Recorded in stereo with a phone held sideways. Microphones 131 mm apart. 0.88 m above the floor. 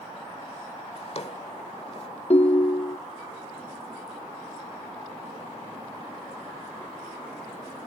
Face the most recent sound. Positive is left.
turn(degrees=50)  # may be behind; listen again after turning